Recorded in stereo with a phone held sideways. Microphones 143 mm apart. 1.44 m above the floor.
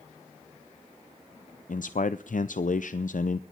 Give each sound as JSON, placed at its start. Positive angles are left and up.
{"t": 1.7, "sound": "a man speaking", "side_deg": 70, "distance_m": 0.5}